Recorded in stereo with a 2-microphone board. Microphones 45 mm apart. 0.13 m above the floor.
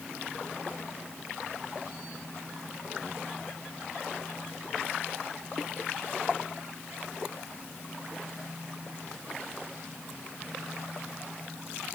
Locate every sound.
Only background noise.